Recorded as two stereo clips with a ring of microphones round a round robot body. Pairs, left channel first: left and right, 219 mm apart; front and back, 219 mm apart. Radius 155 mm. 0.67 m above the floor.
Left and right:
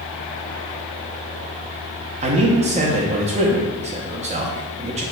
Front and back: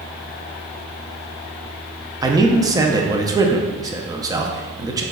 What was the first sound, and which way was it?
A man speaking, 120° right.